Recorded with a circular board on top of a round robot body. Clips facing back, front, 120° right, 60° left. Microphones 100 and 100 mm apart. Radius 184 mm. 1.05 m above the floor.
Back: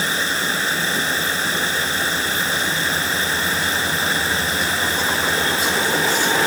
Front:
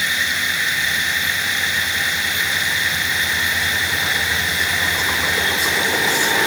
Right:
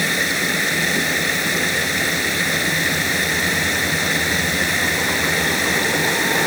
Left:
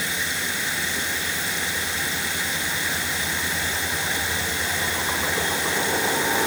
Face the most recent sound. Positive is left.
turn(degrees=-125)